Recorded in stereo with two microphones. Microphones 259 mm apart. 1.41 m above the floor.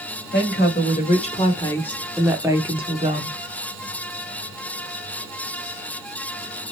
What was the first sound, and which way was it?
A woman speaking, 45° left (ahead or behind).